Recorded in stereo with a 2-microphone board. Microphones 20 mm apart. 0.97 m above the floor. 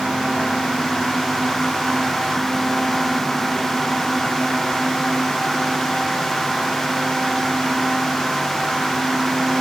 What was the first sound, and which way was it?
Only background noise.